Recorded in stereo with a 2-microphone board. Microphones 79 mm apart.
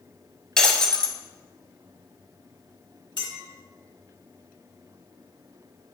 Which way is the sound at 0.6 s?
10° left (ahead or behind).